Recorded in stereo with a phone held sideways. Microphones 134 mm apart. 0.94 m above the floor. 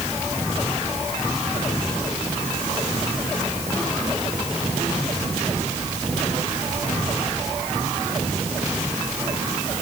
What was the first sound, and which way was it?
Only background noise.